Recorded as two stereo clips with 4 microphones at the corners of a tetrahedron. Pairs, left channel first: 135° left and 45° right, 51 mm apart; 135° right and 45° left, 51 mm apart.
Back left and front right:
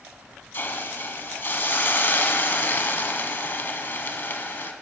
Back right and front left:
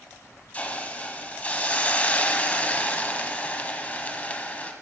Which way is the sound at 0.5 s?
170° left.